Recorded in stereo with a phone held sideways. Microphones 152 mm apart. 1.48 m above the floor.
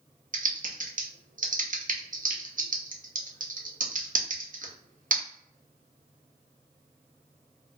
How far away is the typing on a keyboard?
About 0.6 m.